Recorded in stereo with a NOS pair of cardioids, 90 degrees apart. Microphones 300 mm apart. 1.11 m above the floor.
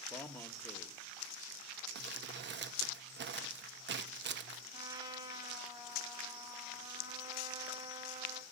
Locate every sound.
0.1 s a man speaking: 5° left, 1.3 m
1.9 s crumpling: 40° right, 0.8 m
4.7 s a trumpet: 15° right, 2.5 m